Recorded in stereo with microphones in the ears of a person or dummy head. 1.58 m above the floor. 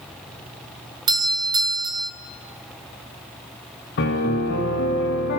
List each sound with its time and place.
1.1 s a doorbell: 25° right (ahead or behind), 1.7 m
4.0 s a piano: 55° left (ahead or behind), 3 m